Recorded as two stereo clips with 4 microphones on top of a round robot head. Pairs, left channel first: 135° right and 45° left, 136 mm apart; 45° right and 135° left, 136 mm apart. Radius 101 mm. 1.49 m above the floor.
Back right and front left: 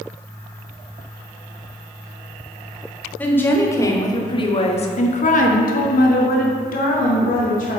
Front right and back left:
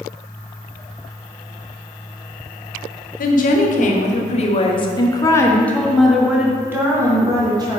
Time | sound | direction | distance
3.2 | a woman speaking | 60° right | 1.4 m